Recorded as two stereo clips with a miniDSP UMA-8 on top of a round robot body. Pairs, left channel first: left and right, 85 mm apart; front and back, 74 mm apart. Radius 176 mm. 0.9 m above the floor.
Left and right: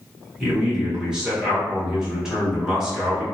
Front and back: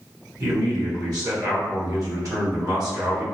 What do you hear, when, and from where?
0.4 s a man speaking: 170° right, 1.5 m